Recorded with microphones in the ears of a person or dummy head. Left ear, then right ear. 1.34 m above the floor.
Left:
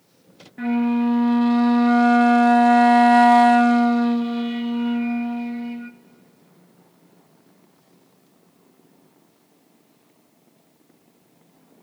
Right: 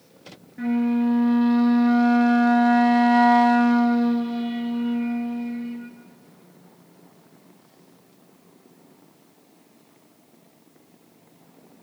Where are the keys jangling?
No keys jangling in this recording.